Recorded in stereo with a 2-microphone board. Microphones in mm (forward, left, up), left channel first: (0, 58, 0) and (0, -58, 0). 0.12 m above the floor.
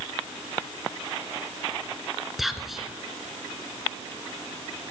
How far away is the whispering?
About 1.4 m.